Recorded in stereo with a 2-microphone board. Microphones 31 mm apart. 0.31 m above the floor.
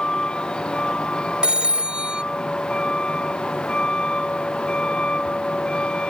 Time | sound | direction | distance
0.0 | a vehicle | 25° left (ahead or behind) | ?
1.4 | a phone ringing | 30° right (ahead or behind) | ?